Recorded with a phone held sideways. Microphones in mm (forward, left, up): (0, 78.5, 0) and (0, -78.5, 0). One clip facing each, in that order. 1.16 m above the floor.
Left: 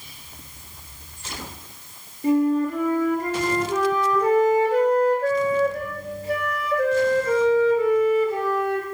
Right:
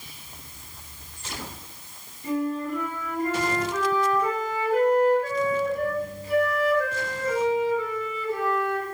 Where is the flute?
75° left (ahead or behind), 2.5 m.